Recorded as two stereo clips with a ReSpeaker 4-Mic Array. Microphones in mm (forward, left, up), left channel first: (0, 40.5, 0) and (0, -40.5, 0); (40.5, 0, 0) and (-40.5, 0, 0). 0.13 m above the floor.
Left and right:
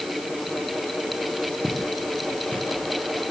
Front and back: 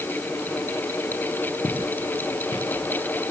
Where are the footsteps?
5° left, 4 m; by 2.8 s 20° left, 4.5 m.